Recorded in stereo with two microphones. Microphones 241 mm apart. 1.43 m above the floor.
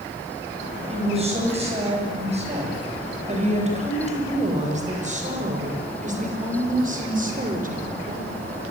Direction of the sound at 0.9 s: 25° right (ahead or behind).